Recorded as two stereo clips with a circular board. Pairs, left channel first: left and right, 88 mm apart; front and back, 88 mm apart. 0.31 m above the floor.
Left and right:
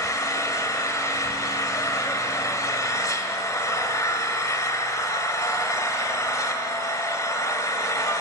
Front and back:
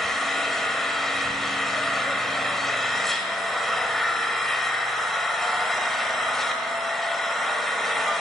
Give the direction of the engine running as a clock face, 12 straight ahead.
9 o'clock.